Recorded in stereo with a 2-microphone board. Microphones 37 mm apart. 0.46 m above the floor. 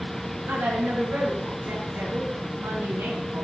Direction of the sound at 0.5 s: 80° right.